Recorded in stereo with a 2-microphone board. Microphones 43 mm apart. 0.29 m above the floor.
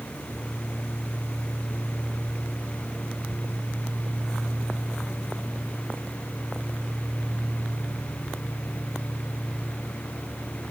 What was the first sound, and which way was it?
Only background noise.